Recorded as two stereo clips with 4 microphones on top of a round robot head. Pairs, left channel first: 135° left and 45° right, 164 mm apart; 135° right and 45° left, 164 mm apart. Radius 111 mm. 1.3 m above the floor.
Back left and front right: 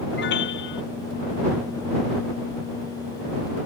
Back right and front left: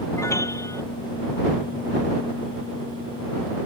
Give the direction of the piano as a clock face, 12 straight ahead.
7 o'clock.